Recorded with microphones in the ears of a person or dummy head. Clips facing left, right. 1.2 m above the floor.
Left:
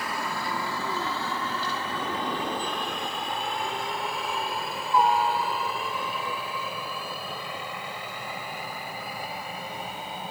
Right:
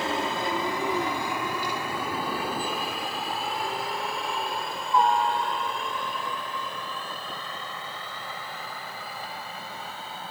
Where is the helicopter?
25° right (ahead or behind); by 10.3 s 15° left (ahead or behind).